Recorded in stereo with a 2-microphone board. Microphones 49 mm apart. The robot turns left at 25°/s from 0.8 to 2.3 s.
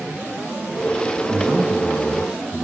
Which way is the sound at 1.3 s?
40° right (ahead or behind).